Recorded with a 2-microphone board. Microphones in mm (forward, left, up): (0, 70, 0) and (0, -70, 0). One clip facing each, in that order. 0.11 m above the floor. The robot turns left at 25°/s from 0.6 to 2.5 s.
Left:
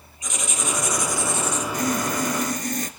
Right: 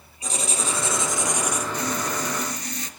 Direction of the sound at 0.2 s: 35° right (ahead or behind).